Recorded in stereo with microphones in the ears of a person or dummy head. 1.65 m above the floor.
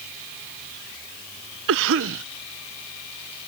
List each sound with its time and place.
1.7 s a cough: 65° right (ahead or behind)